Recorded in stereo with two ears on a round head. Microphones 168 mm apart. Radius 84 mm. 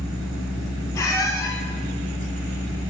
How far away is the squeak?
About 3 m.